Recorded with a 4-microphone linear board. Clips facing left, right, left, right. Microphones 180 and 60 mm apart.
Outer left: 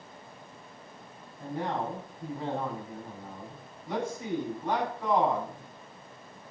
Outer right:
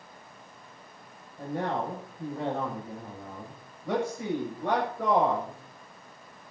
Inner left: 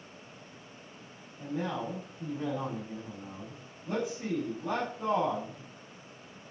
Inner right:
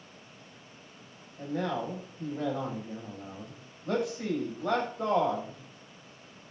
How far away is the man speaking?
About 8 m.